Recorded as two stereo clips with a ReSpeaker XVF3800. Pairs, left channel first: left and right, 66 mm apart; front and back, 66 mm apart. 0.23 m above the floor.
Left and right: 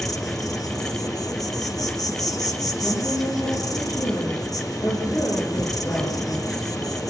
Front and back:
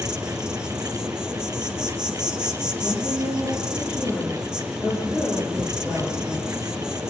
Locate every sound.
0.0 s an insect: 105° left, 2.5 m
2.8 s a woman speaking: 115° left, 8.5 m